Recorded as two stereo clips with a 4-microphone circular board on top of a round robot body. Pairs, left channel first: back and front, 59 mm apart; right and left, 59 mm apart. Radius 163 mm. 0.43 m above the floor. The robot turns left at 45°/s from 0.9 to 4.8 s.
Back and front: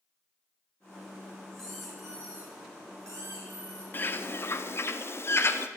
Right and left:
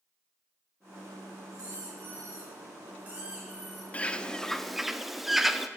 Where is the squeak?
100° left, 3 m; by 3.8 s 5° right, 3 m.